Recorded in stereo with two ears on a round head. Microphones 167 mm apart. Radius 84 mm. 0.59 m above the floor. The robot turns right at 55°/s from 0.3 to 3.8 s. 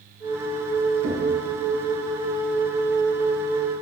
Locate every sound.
1.0 s knocking: 65° right (ahead or behind), 4 m; by 1.3 s 80° right, 4 m